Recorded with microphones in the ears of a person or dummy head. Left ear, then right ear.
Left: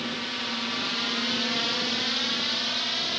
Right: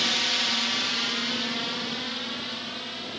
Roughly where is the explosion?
No explosion in this recording.